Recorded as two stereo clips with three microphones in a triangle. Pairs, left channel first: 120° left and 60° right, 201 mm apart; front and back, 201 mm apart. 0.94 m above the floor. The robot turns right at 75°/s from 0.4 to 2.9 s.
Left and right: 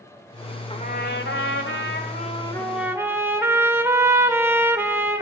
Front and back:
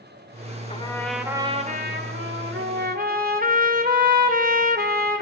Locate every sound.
0.7 s a trumpet: 55° left, 2.5 m; by 5.2 s 140° right, 2.5 m